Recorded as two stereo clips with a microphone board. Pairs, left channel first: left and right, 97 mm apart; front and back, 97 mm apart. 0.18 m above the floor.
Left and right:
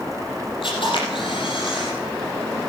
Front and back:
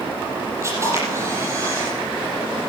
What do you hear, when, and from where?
0.6 s a camera shutter: 120° left, 5 m